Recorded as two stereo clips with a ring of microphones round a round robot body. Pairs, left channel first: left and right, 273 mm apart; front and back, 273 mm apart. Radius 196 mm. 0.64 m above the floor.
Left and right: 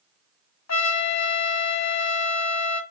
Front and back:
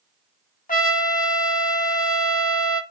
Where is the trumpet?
65° left, 1.5 m.